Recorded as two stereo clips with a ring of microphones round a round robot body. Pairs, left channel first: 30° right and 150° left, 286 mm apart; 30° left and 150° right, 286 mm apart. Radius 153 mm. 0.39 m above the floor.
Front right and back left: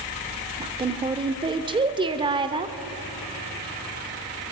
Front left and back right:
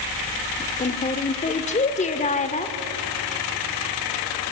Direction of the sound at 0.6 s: 85° left.